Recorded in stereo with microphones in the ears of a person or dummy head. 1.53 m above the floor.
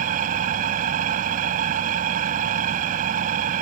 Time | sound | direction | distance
0.0 | an engine running | 45° right (ahead or behind) | ?